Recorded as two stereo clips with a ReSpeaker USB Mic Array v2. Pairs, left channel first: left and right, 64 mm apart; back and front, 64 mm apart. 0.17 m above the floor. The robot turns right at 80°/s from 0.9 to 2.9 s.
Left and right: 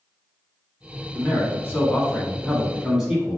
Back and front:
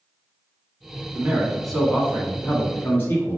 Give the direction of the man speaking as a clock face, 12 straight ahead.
10 o'clock.